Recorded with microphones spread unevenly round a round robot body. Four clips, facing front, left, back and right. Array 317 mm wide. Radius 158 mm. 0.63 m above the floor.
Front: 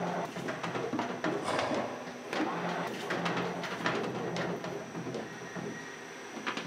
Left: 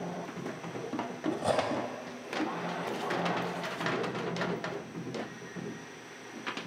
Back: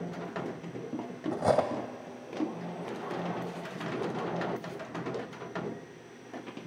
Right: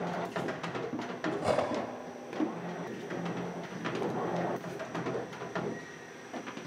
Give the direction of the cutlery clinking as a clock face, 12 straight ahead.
6 o'clock.